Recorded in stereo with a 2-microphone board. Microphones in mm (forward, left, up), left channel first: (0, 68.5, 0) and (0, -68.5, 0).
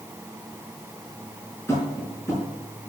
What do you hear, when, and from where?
1.7 s tapping: 20° left (ahead or behind), 4.5 m